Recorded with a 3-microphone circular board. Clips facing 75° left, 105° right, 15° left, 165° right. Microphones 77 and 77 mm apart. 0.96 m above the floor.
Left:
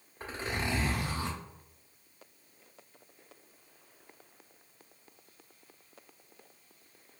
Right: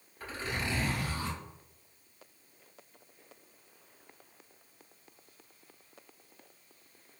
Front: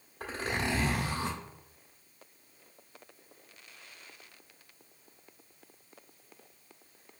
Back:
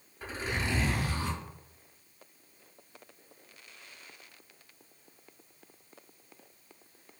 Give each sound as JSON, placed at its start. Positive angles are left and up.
{"t": 0.2, "sound": "a zipper", "azimuth_deg": 10, "distance_m": 1.7}